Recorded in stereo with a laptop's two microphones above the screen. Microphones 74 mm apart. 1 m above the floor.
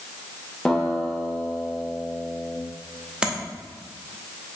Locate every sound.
0.7 s a guitar: 5° left (ahead or behind), 0.9 m
3.2 s tapping: 10° right (ahead or behind), 0.9 m